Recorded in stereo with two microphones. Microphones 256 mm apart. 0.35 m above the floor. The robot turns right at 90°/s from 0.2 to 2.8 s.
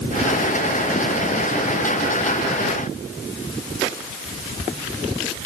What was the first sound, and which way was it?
Only background noise.